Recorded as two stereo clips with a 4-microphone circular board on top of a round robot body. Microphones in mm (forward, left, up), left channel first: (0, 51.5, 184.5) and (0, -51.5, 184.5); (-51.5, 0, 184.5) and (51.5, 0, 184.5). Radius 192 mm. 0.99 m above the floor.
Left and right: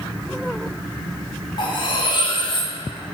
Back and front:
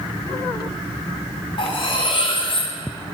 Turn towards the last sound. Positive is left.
turn(degrees=140)